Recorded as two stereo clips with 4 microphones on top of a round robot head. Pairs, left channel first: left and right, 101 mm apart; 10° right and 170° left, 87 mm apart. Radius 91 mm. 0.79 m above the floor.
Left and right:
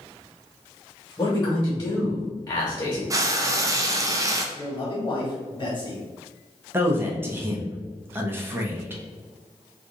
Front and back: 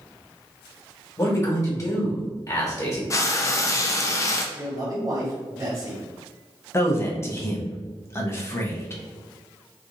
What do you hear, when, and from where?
1.2 s a man speaking: 30° left, 1.4 m
3.1 s frying: 45° right, 0.5 m
4.5 s a man speaking: 135° left, 1.6 m
6.7 s a man speaking: 40° right, 0.8 m